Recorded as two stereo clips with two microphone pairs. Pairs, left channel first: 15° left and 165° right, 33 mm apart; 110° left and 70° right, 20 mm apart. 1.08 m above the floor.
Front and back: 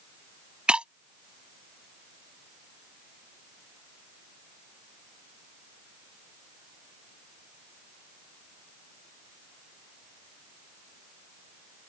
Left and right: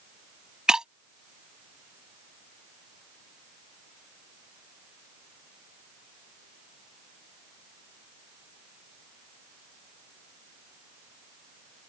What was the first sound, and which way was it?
Breaking glass, 115° right.